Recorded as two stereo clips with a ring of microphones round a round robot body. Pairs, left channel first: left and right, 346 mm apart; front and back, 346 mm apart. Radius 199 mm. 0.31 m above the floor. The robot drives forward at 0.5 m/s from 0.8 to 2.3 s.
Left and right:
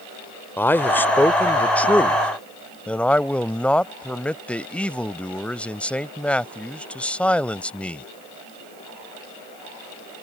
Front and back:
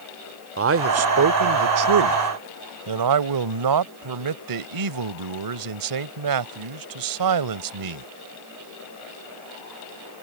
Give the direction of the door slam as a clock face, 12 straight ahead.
I don't hear a door slam.